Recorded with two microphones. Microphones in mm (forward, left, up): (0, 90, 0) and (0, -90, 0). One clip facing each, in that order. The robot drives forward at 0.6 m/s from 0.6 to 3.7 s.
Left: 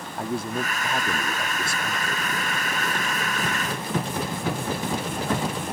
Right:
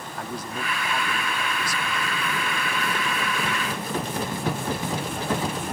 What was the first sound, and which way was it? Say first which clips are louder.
A man speaking: left 6 dB; 25° left (ahead or behind).